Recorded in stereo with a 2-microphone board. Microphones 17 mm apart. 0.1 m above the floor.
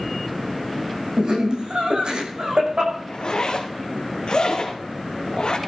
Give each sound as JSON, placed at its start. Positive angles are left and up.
{"t": 1.2, "sound": "laughter", "side_deg": -60, "distance_m": 7.0}
{"t": 3.1, "sound": "a zipper", "side_deg": 65, "distance_m": 2.5}